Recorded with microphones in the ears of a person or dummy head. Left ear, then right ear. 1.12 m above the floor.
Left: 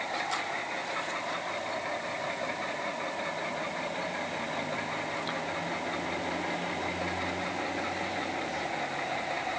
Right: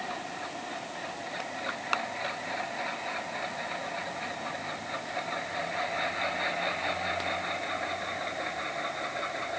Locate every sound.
Only background noise.